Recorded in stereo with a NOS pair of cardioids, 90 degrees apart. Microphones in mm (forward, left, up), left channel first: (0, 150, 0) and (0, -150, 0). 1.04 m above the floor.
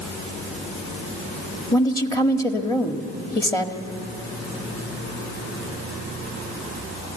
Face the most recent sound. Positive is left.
turn(degrees=10)